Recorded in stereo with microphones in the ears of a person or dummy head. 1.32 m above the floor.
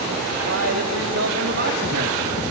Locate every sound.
0.4 s a man speaking: 75° right (ahead or behind), 3.5 m; by 2.2 s 45° right (ahead or behind), 2.5 m